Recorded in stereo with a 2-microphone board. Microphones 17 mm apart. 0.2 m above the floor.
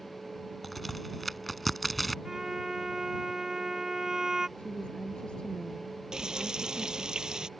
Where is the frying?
45° right (ahead or behind).